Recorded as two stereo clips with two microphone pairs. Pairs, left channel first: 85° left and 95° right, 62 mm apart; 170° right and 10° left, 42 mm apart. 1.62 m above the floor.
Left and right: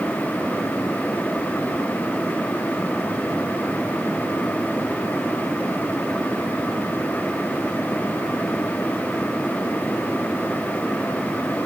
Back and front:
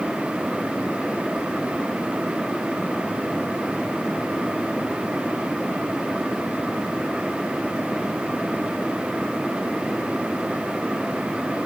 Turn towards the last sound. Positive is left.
No sound to turn to.